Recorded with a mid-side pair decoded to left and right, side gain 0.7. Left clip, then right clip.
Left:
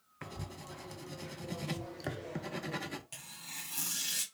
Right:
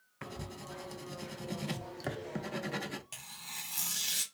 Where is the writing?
5° right, 0.5 m.